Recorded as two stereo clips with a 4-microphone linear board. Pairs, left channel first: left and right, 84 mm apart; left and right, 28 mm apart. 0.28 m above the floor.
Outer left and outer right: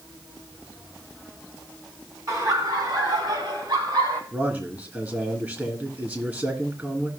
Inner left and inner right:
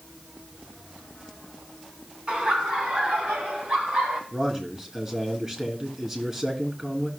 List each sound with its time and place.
2.3 s laughter: 45° right (ahead or behind), 3.5 m; by 4.2 s 55° right (ahead or behind), 2.5 m
4.3 s a man speaking: 25° right (ahead or behind), 3 m